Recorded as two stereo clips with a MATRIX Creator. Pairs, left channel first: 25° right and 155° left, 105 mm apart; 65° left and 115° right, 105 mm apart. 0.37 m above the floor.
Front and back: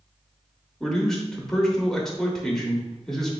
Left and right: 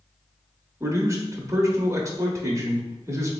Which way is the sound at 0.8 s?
105° right.